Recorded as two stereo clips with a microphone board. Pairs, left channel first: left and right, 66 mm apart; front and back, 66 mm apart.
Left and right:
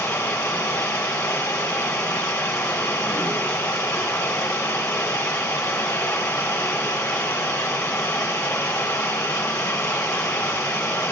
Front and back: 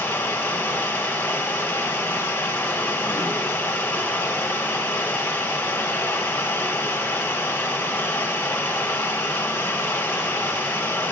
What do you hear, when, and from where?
0.0 s running water: 60° left, 2 m